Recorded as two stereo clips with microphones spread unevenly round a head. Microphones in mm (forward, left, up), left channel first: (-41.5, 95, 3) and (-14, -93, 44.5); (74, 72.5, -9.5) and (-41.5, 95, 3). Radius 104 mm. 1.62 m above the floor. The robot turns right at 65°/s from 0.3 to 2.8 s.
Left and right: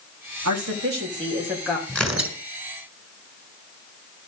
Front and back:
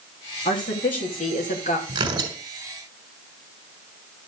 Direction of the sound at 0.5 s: 70° right.